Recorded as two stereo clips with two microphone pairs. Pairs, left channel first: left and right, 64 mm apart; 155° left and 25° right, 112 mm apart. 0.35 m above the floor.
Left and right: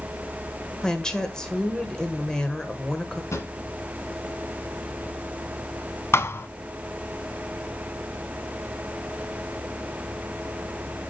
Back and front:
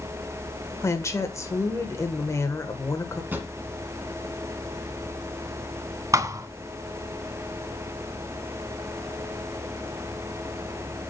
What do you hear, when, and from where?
0.8 s a woman speaking: 155° left, 1.3 m
3.3 s a drawer: 50° left, 1.8 m
6.1 s a thud: 40° left, 0.5 m